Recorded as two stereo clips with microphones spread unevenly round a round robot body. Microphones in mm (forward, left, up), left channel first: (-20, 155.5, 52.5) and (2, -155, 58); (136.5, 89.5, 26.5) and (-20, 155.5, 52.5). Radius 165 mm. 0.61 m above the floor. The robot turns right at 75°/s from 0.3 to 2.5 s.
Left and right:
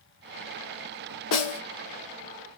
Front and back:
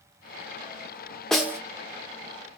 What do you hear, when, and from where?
1.3 s a snare drum: 60° left, 1.6 m; by 1.6 s 85° left, 1.6 m